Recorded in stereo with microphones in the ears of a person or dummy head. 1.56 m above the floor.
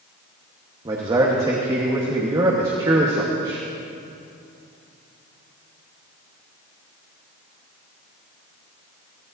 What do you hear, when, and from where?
0.8 s a man speaking: 20° right (ahead or behind), 1.4 m